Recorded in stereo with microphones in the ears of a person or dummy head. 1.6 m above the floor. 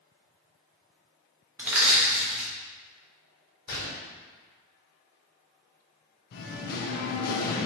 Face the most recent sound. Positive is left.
turn(degrees=55)  # may be behind; listen again after turning